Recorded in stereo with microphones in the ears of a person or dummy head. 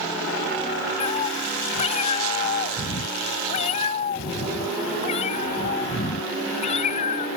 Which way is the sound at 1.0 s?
30° left (ahead or behind).